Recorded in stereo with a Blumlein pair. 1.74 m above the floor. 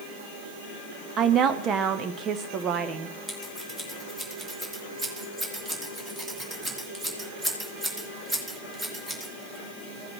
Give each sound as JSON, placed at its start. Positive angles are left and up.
{"t": 1.2, "sound": "a woman speaking", "azimuth_deg": -25, "distance_m": 0.7}
{"t": 3.3, "sound": "scissors", "azimuth_deg": -15, "distance_m": 2.5}